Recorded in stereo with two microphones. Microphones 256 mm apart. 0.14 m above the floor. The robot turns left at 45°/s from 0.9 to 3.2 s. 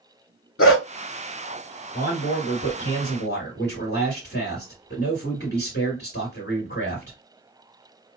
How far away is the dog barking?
About 0.6 m.